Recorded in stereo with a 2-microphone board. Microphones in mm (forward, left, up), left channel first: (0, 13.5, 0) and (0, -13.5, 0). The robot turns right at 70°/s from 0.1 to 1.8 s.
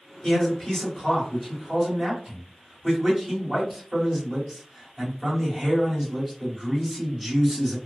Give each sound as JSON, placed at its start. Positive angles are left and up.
{"t": 0.2, "sound": "a man speaking", "side_deg": 15, "distance_m": 1.7}